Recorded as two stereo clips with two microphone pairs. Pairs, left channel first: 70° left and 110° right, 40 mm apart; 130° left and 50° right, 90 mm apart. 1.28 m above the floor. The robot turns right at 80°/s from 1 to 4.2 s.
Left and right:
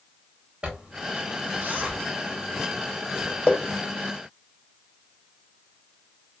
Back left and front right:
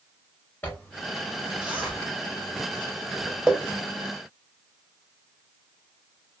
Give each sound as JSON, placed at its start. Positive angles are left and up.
{"t": 0.6, "sound": "a zipper", "azimuth_deg": -165, "distance_m": 0.8}